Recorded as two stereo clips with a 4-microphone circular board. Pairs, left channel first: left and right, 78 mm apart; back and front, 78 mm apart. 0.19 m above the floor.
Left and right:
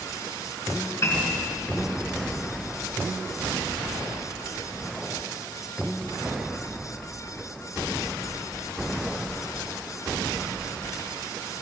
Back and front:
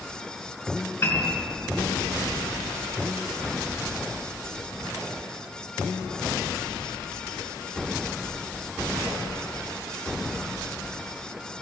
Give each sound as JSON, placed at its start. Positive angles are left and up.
{"t": 1.0, "sound": "a piano", "azimuth_deg": 135, "distance_m": 2.0}